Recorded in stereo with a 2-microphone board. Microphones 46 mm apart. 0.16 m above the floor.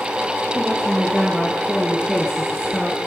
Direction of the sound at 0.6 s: Centre (ahead or behind).